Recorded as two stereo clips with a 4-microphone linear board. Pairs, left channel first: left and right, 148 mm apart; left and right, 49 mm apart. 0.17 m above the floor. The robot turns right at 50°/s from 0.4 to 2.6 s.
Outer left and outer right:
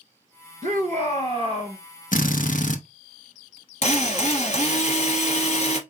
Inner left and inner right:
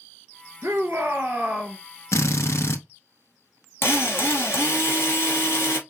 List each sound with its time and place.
0.6 s a shout: 80° right, 3 m; by 1.8 s 20° right, 3 m
2.1 s a drill: 65° left (ahead or behind), 1.0 m; by 2.8 s 60° left (ahead or behind), 1.0 m
3.8 s a drill: 50° left (ahead or behind), 1.8 m